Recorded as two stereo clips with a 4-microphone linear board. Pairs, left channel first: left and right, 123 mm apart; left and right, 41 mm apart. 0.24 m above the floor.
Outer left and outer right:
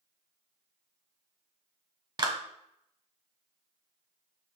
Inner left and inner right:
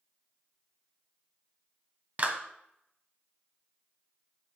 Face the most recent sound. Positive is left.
turn(degrees=-40)  # may be behind; listen again after turning